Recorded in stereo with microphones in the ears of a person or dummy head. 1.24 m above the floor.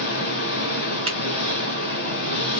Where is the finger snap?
25° right (ahead or behind), 0.9 m.